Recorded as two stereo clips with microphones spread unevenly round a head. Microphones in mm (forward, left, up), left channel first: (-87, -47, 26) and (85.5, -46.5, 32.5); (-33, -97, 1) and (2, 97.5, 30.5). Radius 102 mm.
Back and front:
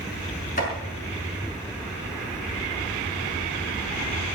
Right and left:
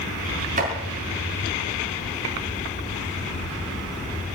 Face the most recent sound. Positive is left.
turn(degrees=125)